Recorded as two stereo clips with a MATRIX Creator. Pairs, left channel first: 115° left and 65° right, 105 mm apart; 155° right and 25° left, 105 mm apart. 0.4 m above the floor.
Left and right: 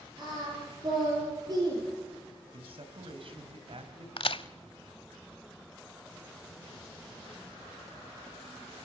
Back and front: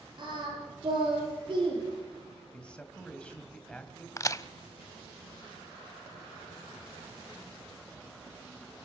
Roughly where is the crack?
Behind left.